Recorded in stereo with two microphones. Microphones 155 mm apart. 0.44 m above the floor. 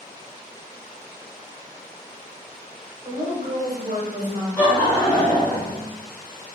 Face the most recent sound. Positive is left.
turn(degrees=20)  # may be behind; listen again after turning